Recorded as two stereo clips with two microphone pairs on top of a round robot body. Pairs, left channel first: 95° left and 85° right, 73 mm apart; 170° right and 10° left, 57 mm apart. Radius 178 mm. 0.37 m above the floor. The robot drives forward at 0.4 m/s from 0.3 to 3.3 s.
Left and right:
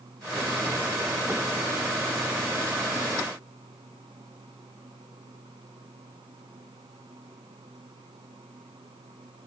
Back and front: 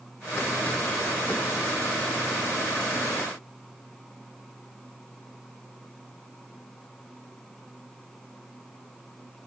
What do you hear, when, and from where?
Only background noise.